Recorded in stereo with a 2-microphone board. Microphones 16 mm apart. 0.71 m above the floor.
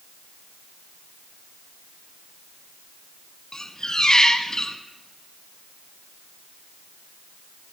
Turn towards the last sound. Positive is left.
turn(degrees=50)  # may be behind; listen again after turning